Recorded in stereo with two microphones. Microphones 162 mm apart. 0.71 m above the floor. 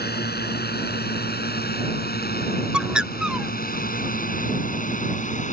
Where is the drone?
80° left; by 5.5 s 50° left (ahead or behind).